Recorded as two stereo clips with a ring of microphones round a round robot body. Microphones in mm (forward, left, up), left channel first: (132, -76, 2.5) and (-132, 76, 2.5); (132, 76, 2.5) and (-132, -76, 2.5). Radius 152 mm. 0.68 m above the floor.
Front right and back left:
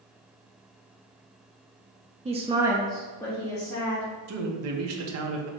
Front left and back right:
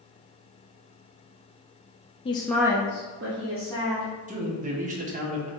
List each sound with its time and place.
2.2 s a woman speaking: 90° left, 0.6 m; by 4.1 s 105° right, 1.4 m
4.3 s a man speaking: 150° left, 0.7 m